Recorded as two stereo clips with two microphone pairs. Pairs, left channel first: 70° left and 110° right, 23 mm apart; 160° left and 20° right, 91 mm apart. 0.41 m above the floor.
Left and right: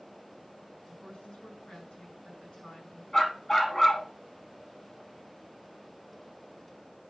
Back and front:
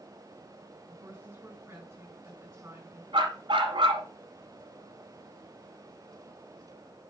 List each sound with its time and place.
0.9 s a woman speaking: 45° left, 4.5 m
3.1 s a dog barking: 5° left, 1.3 m